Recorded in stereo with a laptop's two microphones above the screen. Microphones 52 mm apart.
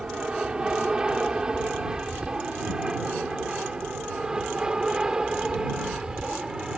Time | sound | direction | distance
0.0 | an aircraft | 15° right (ahead or behind) | ?